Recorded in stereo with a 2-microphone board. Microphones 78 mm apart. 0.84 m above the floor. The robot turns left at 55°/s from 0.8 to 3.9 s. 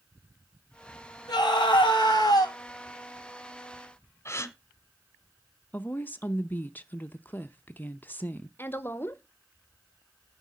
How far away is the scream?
About 5.5 m.